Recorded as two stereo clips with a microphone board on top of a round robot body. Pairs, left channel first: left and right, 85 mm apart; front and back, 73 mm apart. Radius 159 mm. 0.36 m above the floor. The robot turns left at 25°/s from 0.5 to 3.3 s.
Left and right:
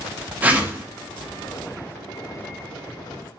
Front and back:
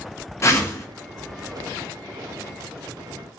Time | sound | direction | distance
0.4 | a whoosh | 30° right | 1.1 m